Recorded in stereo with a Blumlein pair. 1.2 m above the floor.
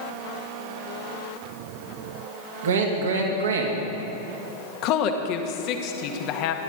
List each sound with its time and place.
2.6 s a man speaking: 60° right, 2.5 m
4.8 s a woman speaking: 40° left, 1.4 m